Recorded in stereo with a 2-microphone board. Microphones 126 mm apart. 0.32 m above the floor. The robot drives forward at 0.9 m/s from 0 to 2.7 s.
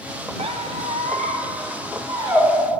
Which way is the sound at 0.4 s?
55° right (ahead or behind).